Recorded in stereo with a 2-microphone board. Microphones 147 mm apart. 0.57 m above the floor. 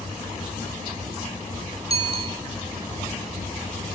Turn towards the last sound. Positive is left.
turn(degrees=-40)  # may be behind; listen again after turning